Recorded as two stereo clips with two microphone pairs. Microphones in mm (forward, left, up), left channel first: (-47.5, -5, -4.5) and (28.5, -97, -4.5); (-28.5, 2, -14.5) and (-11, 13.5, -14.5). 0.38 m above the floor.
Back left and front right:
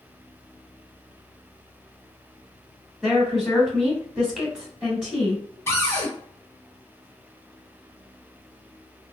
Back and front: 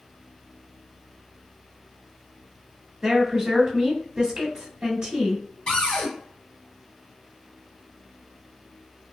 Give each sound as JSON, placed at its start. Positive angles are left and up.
{"t": 3.0, "sound": "a woman speaking", "azimuth_deg": 45, "distance_m": 1.0}
{"t": 5.7, "sound": "a cupboard door", "azimuth_deg": -160, "distance_m": 1.1}